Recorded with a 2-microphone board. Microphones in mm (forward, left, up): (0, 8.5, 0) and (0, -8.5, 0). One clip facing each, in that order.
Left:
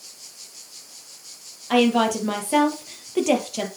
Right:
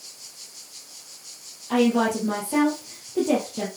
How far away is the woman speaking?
About 3 m.